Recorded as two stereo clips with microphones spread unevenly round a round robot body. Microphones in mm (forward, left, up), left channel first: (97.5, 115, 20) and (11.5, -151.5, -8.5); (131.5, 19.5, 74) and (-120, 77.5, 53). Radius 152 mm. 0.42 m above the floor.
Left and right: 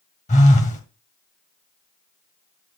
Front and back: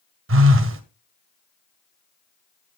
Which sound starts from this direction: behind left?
A phone buzzing, at 0.3 s.